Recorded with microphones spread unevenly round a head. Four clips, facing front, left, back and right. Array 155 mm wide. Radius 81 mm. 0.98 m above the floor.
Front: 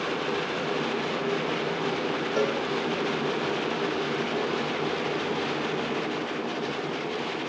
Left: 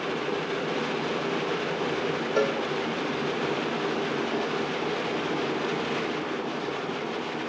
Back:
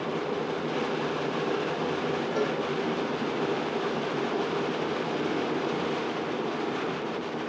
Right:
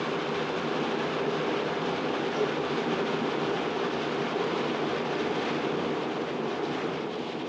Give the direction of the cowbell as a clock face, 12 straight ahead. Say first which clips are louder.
Left 6 dB, front 4 dB; 10 o'clock.